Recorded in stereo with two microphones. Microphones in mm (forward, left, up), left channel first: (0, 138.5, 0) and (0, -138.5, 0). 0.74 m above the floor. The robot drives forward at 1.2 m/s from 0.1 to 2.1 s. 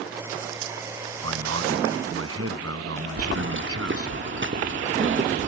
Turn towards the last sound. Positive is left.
turn(degrees=-45)  # may be behind; listen again after turning